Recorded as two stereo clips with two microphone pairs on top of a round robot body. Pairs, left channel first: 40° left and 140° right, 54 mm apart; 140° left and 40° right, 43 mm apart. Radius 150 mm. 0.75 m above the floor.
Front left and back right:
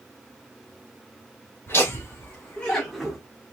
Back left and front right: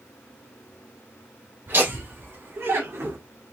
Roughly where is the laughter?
Ahead.